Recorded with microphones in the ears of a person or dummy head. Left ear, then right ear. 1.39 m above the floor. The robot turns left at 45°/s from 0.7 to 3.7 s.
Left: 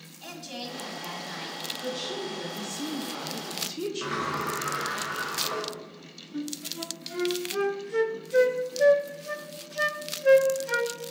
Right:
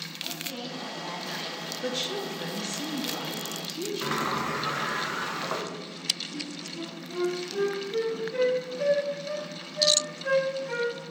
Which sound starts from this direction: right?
A sliding door, at 4.0 s.